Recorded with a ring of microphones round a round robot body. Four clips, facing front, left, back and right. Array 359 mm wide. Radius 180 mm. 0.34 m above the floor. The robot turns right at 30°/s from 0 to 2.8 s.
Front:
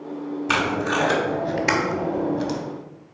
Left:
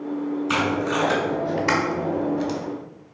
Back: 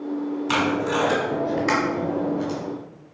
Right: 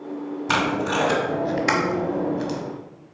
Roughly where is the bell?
I don't hear a bell.